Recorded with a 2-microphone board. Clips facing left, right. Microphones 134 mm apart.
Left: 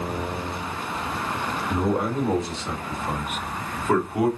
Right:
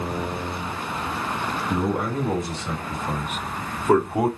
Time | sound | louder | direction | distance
1.7 | a man speaking | left 1 dB | 30° left (ahead or behind) | 1.9 m